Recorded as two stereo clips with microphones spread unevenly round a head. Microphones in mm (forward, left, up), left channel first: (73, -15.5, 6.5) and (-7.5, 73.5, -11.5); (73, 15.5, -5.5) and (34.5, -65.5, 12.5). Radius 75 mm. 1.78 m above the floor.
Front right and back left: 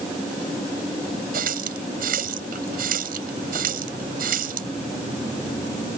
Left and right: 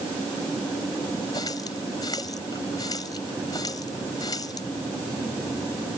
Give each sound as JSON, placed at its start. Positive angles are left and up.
{"t": 1.3, "sound": "a running tap", "azimuth_deg": 135}